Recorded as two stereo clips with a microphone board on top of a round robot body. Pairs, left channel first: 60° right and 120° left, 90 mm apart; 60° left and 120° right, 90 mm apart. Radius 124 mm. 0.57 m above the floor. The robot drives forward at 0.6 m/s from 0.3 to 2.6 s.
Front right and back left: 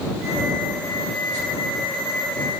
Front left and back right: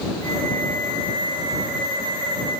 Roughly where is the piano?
I don't hear a piano.